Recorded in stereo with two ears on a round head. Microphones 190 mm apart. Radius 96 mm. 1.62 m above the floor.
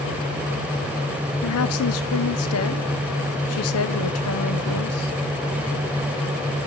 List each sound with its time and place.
1.4 s a woman speaking: 75° left (ahead or behind), 1.1 m